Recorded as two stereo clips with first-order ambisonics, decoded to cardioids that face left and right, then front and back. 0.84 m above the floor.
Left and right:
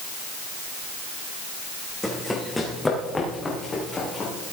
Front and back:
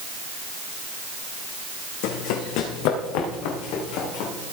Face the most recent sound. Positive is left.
turn(degrees=15)